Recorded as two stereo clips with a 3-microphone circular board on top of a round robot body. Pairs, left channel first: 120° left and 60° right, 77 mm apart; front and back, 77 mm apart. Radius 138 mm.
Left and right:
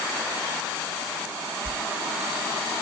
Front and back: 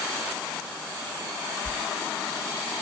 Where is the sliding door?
75° right, 2 m.